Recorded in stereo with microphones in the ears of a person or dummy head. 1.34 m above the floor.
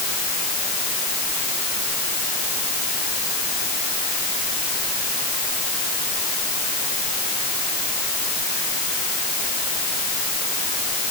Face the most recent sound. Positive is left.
No sound to turn to.